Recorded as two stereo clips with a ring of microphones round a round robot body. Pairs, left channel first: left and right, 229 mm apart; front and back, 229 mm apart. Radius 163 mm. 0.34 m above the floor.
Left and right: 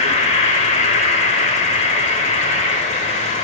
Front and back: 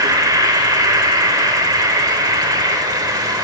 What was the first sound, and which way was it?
An insect, 120° left.